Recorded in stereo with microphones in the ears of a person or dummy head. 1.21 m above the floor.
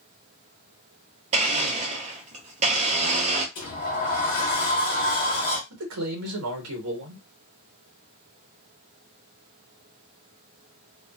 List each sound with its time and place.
1.3 s a blender: 35° right (ahead or behind), 0.9 m
3.5 s a sliding door: 50° left (ahead or behind), 1.0 m
5.7 s a man speaking: 75° right (ahead or behind), 1.2 m